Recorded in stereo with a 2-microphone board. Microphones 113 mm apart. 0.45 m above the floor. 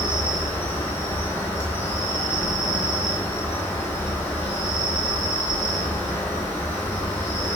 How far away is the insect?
About 0.8 m.